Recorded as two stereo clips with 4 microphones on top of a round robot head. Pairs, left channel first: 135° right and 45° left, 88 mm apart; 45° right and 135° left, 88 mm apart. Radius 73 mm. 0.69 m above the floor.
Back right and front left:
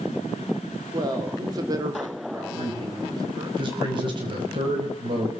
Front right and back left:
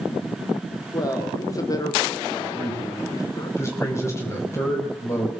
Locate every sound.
0.9 s a man speaking: straight ahead, 3 m
2.5 s a man speaking: 15° left, 6 m